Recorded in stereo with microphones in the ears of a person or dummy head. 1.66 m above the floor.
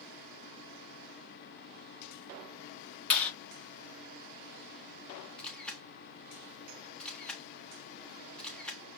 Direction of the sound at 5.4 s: 10° left (ahead or behind).